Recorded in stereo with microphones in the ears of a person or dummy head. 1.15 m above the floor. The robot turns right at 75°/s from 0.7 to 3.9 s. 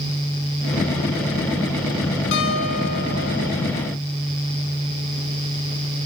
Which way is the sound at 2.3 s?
65° left.